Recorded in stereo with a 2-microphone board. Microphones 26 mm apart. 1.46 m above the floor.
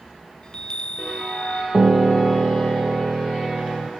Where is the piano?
75° right (ahead or behind), 0.7 m.